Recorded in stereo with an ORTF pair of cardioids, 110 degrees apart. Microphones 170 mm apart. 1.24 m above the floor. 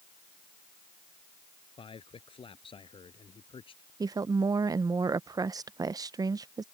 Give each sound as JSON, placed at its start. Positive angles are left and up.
{"t": 1.8, "sound": "a man speaking", "azimuth_deg": 30}
{"t": 4.0, "sound": "a woman speaking", "azimuth_deg": -20}